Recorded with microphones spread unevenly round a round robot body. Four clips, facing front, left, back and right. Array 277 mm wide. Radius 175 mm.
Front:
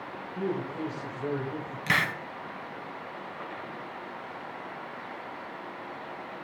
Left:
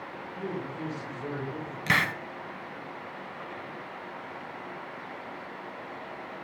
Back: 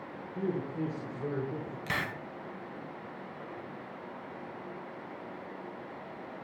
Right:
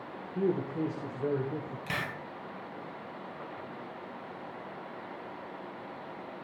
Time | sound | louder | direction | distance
0.3 | a man speaking | right 6 dB, front 2 dB | 110° right | 3 m
1.9 | a hiss | left 11 dB, front 8 dB | 60° left | 2.5 m